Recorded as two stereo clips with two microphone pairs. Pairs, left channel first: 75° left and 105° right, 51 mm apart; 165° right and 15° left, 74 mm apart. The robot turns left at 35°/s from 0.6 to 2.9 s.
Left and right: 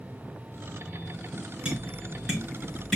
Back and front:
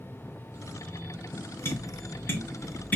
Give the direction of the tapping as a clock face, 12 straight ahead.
5 o'clock.